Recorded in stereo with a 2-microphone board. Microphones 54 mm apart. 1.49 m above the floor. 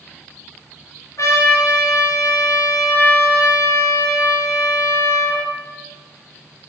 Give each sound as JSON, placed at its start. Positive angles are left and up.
{"t": 1.2, "sound": "a trumpet", "side_deg": 85, "distance_m": 3.0}